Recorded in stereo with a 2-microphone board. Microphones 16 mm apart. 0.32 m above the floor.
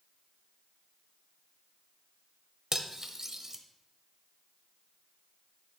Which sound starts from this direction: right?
Cutlery clinking, at 2.7 s.